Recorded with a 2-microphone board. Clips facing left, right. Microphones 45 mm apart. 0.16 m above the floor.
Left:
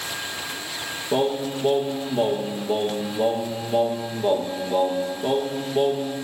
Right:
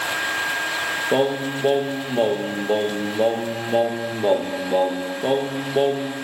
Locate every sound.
1.1 s singing: 30° right (ahead or behind), 1.7 m